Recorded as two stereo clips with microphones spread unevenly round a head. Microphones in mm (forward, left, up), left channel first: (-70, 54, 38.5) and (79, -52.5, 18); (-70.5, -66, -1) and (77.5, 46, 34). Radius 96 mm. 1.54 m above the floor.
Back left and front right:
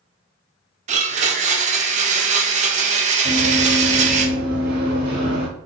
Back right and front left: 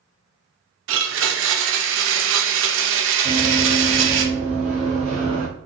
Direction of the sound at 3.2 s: 15° left.